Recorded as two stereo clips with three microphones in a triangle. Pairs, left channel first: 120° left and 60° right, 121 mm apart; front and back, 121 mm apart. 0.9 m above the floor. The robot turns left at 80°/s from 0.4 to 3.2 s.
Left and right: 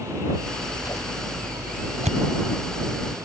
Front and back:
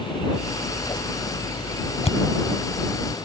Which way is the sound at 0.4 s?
95° left.